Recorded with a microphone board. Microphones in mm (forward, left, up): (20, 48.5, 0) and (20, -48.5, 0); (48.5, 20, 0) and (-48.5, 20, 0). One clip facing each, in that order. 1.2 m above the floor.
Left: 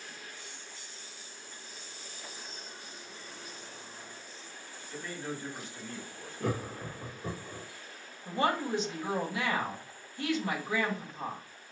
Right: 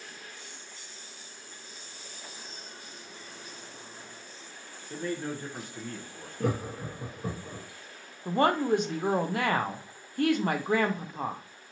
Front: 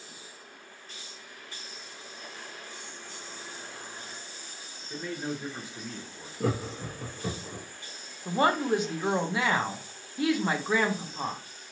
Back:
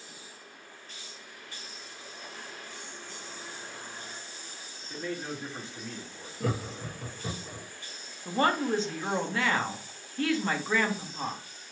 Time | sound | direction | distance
4.9 | a man speaking | 80° right | 1.0 m
6.4 | laughter | 60° right | 1.1 m
8.2 | a woman speaking | 75° right | 0.6 m